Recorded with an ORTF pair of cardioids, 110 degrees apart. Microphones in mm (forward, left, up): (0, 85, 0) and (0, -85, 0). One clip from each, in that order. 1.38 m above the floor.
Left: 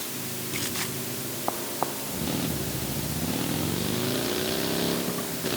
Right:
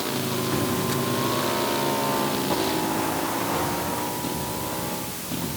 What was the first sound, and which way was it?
Only background noise.